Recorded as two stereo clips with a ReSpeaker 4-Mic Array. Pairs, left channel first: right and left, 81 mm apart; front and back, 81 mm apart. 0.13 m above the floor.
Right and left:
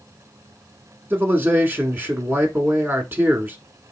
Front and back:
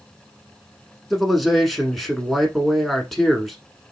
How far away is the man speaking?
About 1.1 m.